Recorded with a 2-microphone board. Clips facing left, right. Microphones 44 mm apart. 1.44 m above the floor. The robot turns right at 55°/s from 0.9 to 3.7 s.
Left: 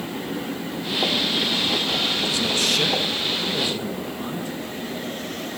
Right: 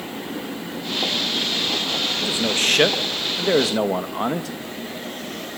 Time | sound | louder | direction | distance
2.2 | a man speaking | right 1 dB | 165° right | 1.9 m